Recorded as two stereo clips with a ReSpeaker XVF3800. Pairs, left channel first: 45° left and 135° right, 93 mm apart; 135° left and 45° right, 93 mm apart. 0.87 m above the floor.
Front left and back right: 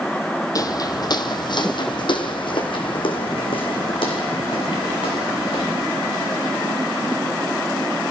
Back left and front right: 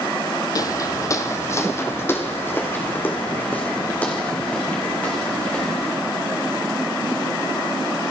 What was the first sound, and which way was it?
Footsteps, 90° left.